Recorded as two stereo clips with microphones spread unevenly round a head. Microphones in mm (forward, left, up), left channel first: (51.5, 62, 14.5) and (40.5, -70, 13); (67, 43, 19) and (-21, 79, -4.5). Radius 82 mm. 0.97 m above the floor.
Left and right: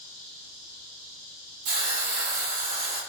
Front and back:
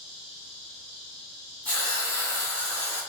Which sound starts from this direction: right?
A hiss, at 1.6 s.